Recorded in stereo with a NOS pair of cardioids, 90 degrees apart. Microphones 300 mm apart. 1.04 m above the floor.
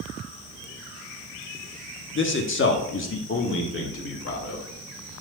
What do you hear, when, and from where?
2.1 s a man speaking: 40° left, 1.5 m